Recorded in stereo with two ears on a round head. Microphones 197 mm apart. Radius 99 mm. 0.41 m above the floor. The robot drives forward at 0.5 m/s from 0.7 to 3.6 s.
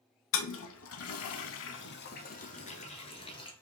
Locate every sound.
0.3 s a toilet flushing: 60° left (ahead or behind), 0.6 m; by 3.5 s 25° left (ahead or behind), 1.3 m